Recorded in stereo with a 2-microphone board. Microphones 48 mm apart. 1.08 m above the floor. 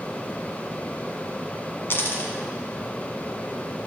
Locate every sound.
1.9 s a dropped coin: 55° left (ahead or behind), 1.6 m